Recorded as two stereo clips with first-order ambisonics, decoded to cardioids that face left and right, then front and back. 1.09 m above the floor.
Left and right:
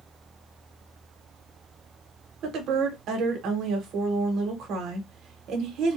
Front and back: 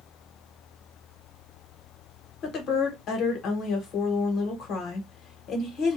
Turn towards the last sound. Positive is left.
turn(degrees=-45)